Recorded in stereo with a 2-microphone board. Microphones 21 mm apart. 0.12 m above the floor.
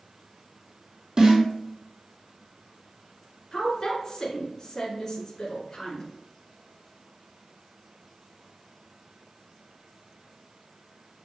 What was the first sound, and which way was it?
A snare drum, 50° right (ahead or behind).